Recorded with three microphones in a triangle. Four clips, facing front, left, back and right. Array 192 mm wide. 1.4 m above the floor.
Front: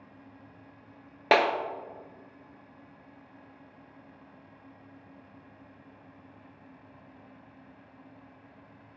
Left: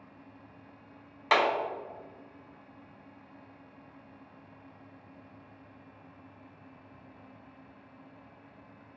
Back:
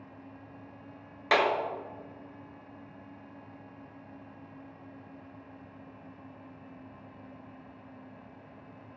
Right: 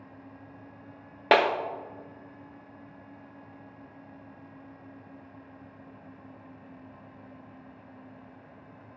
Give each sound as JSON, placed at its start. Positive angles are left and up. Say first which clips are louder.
{"t": 1.3, "sound": "a clap", "louder": "right 4 dB, front 3 dB", "azimuth_deg": -55, "distance_m": 0.6}